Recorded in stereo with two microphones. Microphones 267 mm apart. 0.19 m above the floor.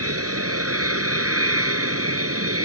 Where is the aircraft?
60° right (ahead or behind).